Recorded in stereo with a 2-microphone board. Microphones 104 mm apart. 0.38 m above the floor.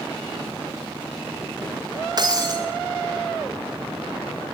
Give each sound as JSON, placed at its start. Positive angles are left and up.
{"t": 2.2, "sound": "breaking glass", "side_deg": -40, "distance_m": 6.0}